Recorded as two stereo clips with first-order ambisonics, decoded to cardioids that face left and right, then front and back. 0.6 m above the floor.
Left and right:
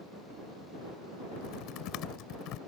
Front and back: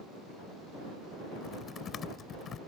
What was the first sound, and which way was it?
Typing on a keyboard, 60° left.